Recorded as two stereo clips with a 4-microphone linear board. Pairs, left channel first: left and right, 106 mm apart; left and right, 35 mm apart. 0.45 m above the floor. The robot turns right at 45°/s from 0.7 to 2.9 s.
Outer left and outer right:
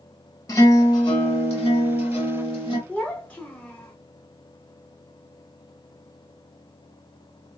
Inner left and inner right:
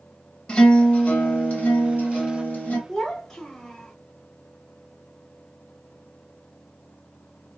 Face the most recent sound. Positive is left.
turn(degrees=15)  # may be behind; listen again after turning